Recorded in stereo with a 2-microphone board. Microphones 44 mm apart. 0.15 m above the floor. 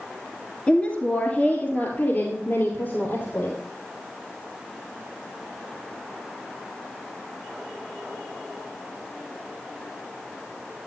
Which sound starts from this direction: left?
A woman speaking, at 0.7 s.